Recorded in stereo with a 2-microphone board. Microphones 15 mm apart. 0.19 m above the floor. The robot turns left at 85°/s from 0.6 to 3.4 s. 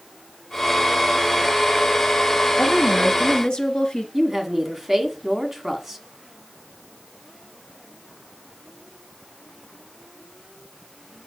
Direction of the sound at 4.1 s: 15° right (ahead or behind).